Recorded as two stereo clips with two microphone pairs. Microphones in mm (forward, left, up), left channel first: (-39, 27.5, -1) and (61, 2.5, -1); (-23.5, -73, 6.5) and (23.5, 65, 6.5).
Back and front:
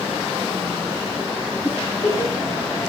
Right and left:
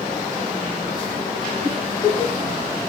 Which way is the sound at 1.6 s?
145° left.